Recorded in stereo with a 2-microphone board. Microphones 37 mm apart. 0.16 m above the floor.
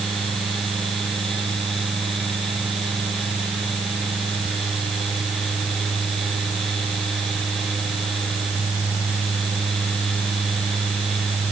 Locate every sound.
Only background noise.